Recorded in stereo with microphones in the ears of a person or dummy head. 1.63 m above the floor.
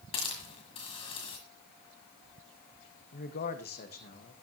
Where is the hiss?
25° left (ahead or behind), 1.7 m.